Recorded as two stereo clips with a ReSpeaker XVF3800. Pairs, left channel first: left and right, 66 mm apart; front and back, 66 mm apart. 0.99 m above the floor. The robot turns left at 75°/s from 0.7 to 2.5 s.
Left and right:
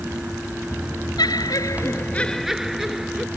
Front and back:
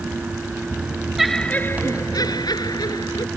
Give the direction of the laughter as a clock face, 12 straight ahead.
9 o'clock.